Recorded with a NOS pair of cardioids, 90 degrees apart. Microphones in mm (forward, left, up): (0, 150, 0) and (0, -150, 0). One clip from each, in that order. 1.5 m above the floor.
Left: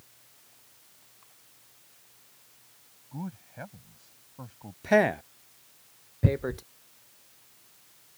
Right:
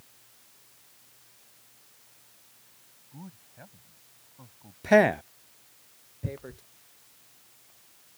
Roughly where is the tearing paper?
Ahead left.